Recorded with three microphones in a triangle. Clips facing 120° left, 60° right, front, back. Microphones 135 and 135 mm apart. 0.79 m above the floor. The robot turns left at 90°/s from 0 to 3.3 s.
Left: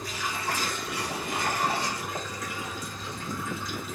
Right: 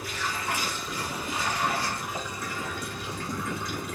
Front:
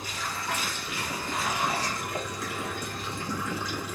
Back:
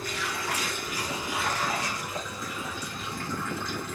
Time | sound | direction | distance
0.0 | running water | 145° right | 3 m